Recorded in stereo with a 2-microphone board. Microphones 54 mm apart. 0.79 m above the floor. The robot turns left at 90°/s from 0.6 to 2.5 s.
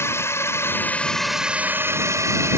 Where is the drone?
60° left; by 2.6 s 110° right.